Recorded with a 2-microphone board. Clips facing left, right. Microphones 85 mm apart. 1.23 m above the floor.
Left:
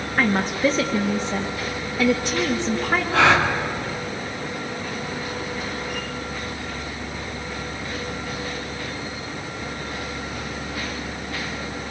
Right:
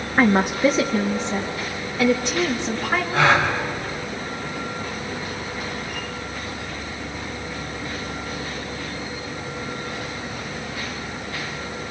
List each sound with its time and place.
0.2 s a woman speaking: 25° right (ahead or behind), 0.6 m; by 3.0 s 10° left (ahead or behind), 2 m
3.1 s a gasp: 90° left, 2.5 m